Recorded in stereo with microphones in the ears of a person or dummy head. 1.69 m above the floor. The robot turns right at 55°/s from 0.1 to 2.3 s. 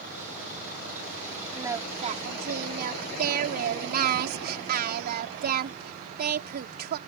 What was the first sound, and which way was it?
Singing, 170° right.